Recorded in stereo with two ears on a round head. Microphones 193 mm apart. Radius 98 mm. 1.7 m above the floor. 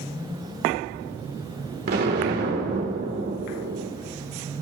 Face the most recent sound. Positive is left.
turn(degrees=-50)  # may be behind; listen again after turning